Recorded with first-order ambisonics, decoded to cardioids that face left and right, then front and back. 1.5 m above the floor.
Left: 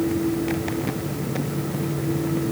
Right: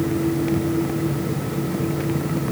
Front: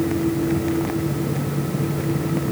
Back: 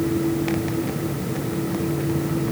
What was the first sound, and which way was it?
Only background noise.